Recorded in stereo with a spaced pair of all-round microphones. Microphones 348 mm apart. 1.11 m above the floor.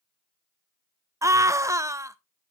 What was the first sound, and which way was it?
A scream, 10° right (ahead or behind).